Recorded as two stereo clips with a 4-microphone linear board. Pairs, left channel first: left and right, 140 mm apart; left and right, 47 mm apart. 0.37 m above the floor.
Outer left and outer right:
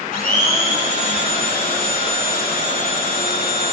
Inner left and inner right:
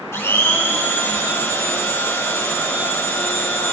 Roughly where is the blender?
Left.